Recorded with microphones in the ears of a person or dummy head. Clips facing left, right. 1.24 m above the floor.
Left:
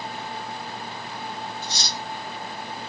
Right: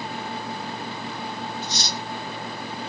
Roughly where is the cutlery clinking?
Left.